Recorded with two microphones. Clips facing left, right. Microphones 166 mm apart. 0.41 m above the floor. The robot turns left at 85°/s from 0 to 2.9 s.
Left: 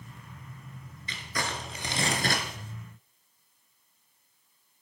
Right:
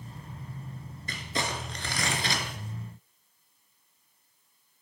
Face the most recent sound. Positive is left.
turn(degrees=75)